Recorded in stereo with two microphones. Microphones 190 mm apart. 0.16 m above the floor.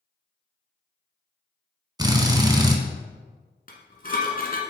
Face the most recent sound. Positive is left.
turn(degrees=50)  # may be behind; listen again after turning